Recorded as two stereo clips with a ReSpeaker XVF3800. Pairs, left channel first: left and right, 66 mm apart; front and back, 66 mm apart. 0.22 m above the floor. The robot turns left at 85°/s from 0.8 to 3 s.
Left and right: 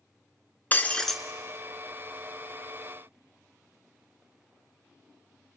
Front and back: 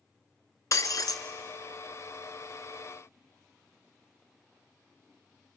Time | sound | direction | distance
0.7 | breaking glass | 30° left | 0.9 m